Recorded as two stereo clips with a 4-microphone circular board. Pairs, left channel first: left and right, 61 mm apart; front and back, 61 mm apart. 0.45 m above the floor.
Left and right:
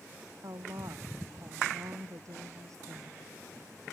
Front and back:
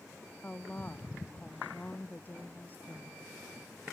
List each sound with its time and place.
0.4 s a woman speaking: 65° right; by 3.3 s 60° right